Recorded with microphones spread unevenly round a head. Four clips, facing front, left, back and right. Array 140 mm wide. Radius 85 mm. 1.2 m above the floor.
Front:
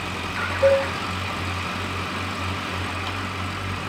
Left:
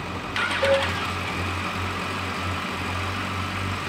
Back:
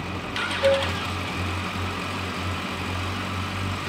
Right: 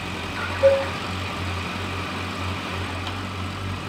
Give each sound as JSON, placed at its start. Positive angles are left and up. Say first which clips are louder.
{"t": 0.6, "sound": "a cowbell", "louder": "right 4 dB, front 3 dB", "azimuth_deg": 60, "distance_m": 4.0}